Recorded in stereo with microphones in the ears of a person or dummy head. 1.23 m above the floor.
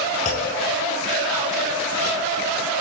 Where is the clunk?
40° left (ahead or behind), 1.7 m.